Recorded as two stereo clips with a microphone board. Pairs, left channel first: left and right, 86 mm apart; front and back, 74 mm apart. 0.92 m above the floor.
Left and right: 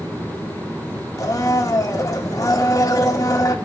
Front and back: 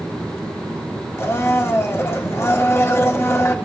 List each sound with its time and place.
1.2 s a blender: 50° left, 1.5 m